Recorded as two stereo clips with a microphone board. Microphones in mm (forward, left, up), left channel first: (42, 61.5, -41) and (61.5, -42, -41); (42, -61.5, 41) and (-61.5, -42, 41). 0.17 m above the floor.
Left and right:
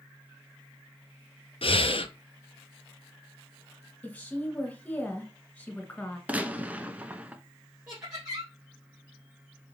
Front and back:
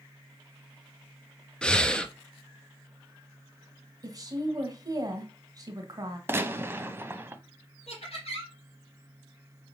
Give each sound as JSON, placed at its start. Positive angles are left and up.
{"t": 1.6, "sound": "breathing", "azimuth_deg": 70, "distance_m": 0.6}
{"t": 4.0, "sound": "a woman speaking", "azimuth_deg": 165, "distance_m": 1.7}
{"t": 6.3, "sound": "a gunshot", "azimuth_deg": -140, "distance_m": 0.7}
{"t": 7.9, "sound": "laughter", "azimuth_deg": -5, "distance_m": 3.0}